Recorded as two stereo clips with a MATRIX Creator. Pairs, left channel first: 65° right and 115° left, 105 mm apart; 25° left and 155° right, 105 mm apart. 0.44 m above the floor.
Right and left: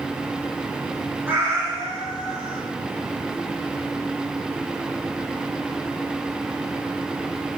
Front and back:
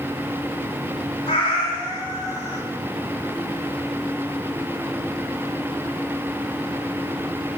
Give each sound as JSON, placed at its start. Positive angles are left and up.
{"t": 1.3, "sound": "a cat meowing", "azimuth_deg": 45, "distance_m": 1.1}